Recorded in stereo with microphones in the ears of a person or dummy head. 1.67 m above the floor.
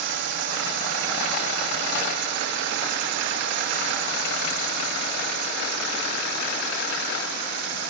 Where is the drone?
60° right (ahead or behind).